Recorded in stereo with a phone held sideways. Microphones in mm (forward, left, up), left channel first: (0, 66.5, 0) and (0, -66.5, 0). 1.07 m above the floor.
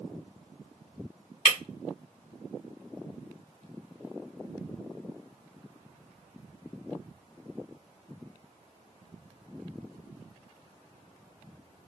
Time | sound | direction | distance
1.4 | breaking glass | 50° left (ahead or behind) | 2 m